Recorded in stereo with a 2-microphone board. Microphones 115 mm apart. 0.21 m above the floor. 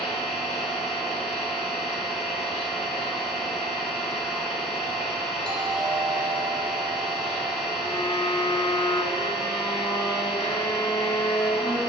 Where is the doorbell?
10° left (ahead or behind), 1.9 m.